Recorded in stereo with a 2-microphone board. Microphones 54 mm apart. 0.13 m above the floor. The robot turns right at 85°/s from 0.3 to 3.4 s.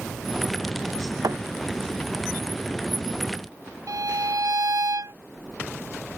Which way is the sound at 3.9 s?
85° right.